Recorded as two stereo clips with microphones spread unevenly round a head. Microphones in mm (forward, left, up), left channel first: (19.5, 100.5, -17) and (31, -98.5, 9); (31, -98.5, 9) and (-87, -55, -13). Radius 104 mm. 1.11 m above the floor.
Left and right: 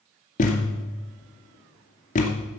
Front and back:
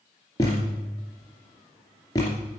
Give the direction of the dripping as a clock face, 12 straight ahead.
I don't hear dripping.